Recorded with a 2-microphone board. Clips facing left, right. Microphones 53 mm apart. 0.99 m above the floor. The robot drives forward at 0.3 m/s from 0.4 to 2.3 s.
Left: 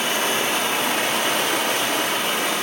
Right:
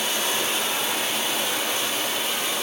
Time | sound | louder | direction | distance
0.0 | running water | left 4 dB | 50° left (ahead or behind) | 0.7 m